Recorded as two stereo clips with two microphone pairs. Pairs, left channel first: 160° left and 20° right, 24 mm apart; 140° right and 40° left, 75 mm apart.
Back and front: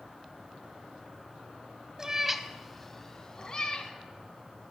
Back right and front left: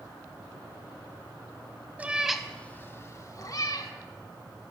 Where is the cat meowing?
5° left, 0.7 m; by 3.9 s 155° right, 1.2 m.